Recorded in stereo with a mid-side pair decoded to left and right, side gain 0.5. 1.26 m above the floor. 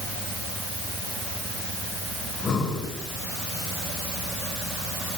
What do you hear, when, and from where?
2.2 s breathing: 50° left, 6.5 m